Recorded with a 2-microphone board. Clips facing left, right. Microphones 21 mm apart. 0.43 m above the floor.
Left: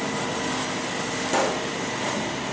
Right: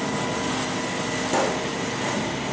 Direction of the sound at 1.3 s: 5° left (ahead or behind).